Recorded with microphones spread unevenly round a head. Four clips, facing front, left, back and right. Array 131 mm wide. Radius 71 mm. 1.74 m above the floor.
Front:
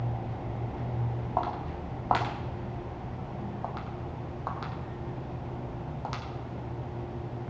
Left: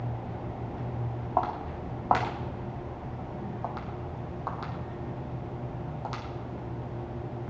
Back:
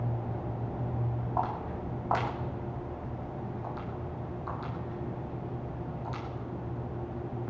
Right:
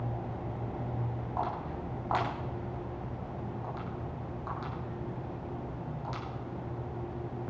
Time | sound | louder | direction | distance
1.4 | footsteps | left 6 dB, front 1 dB | 65° left | 4.5 m